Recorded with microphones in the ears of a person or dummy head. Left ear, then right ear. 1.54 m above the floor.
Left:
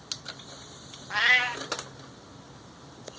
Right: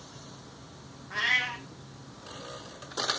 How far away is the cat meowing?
About 1.1 m.